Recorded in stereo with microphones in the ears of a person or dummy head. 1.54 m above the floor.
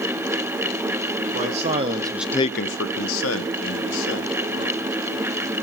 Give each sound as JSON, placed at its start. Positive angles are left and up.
{"t": 1.3, "sound": "a man speaking", "side_deg": -40, "distance_m": 1.7}